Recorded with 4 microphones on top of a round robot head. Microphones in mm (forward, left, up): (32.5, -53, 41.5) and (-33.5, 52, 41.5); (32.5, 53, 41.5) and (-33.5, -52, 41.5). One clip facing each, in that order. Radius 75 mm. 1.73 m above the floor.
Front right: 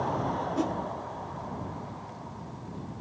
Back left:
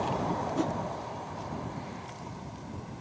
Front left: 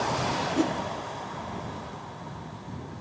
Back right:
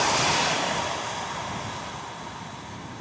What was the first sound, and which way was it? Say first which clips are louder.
A whoosh: front right 2 dB, front left 3 dB; 30° left.